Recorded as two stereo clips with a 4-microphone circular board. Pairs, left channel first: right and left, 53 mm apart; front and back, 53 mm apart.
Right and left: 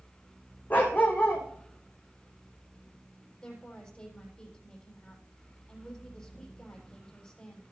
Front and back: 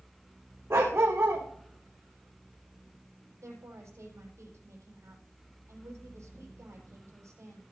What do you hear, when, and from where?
0.7 s a dog barking: 145° right, 4.5 m
3.4 s a woman speaking: 160° right, 7 m